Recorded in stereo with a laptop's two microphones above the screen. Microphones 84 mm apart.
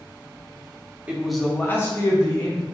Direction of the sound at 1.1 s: 15° right (ahead or behind).